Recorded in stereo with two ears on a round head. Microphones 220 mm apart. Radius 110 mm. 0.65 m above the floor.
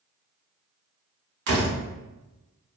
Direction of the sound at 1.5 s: 45° right (ahead or behind).